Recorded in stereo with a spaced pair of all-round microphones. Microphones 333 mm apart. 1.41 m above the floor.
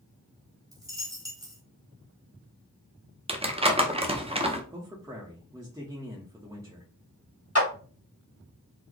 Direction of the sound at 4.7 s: 10° right (ahead or behind).